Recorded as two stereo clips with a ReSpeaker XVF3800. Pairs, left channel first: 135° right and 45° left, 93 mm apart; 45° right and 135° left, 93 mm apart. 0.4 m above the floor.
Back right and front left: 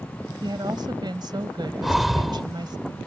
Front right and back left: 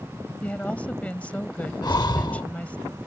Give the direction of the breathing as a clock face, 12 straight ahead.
1 o'clock.